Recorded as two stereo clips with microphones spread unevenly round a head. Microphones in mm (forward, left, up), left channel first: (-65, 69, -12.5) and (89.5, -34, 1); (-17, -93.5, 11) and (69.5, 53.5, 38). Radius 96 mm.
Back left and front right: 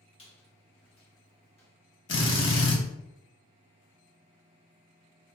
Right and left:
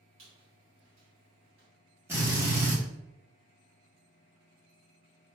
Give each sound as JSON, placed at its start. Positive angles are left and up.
{"t": 0.2, "sound": "a squeak", "azimuth_deg": 85, "distance_m": 1.5}
{"t": 2.1, "sound": "a drill", "azimuth_deg": 130, "distance_m": 0.8}